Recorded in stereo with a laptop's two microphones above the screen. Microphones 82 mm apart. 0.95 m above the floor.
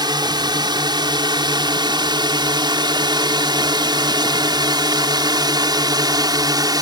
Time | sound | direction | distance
0.0 | a drone | 65° right (ahead or behind) | ?